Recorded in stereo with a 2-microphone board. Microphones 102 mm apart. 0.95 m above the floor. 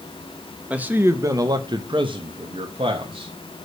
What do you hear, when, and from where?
0.7 s a man speaking: 15° right (ahead or behind), 1.0 m; by 3.3 s 70° right (ahead or behind), 1.6 m